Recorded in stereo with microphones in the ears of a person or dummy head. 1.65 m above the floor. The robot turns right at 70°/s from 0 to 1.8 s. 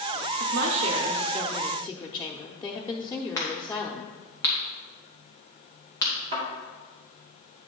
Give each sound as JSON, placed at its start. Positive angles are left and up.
{"t": 0.4, "sound": "a woman speaking", "azimuth_deg": -80, "distance_m": 0.8}
{"t": 3.4, "sound": "a crack", "side_deg": 15, "distance_m": 1.7}
{"t": 6.3, "sound": "a thud", "side_deg": -30, "distance_m": 1.9}